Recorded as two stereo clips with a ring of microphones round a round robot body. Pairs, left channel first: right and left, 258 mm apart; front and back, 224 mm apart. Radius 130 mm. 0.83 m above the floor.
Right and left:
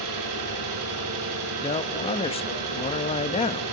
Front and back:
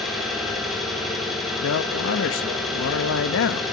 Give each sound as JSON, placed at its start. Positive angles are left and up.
{"t": 0.0, "sound": "an engine running", "azimuth_deg": 90, "distance_m": 9.5}
{"t": 1.6, "sound": "a man speaking", "azimuth_deg": -25, "distance_m": 0.8}